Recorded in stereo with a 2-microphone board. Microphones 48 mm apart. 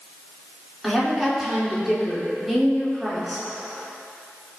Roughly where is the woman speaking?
Centre.